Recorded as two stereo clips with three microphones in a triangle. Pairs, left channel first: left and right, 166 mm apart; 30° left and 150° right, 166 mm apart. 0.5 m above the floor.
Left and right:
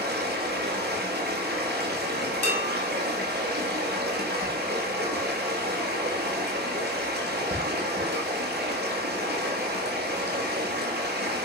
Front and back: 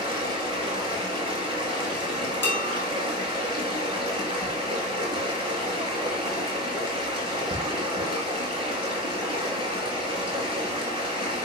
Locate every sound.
0.0 s running water: 90° right, 4.5 m
2.4 s dishes clattering: 45° right, 5.5 m